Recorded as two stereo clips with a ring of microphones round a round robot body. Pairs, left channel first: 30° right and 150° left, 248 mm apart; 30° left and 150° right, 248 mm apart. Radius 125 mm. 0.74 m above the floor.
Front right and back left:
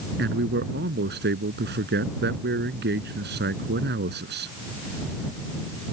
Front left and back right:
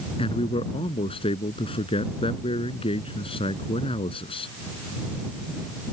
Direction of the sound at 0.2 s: 100° left.